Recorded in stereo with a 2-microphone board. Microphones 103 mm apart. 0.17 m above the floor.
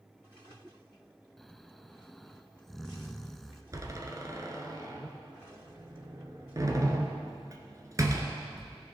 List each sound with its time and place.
1.4 s snoring: centre (ahead or behind), 0.5 m
3.7 s a door slam: 35° right (ahead or behind), 1.3 m